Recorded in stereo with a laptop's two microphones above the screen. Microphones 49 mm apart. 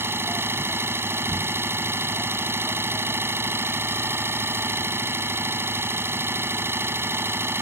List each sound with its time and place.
0.0 s an engine running: 55° right (ahead or behind)